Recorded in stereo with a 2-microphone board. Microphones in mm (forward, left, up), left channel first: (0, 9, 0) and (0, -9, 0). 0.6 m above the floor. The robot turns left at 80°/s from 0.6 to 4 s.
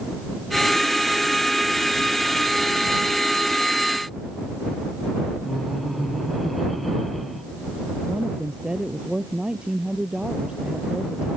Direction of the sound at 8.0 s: 50° right (ahead or behind).